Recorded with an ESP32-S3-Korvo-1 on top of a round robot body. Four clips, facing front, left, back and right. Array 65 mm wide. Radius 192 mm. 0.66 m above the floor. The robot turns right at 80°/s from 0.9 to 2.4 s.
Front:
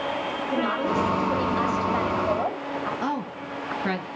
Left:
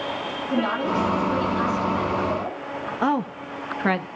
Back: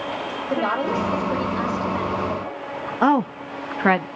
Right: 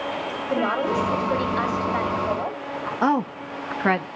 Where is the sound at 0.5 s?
135° right, 4.5 m; by 2.9 s 15° right, 4.5 m.